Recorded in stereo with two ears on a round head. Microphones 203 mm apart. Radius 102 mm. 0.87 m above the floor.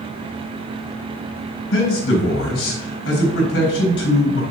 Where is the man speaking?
60° left (ahead or behind), 4 m.